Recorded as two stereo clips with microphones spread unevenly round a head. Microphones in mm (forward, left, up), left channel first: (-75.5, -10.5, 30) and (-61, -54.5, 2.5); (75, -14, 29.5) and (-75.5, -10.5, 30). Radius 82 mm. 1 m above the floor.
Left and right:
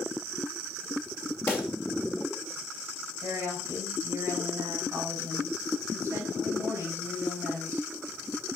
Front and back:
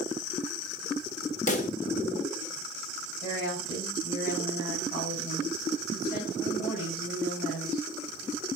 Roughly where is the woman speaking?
Ahead right.